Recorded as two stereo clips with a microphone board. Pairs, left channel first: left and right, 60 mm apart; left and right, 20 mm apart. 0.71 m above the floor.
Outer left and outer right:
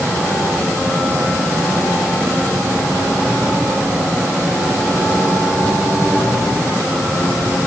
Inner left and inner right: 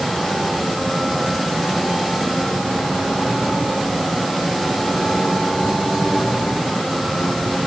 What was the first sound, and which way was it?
Only background noise.